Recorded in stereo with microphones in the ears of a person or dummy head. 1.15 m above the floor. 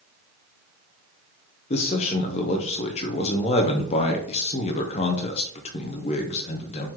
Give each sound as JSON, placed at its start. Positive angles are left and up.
{"t": 1.7, "sound": "a man speaking", "side_deg": 30, "distance_m": 0.5}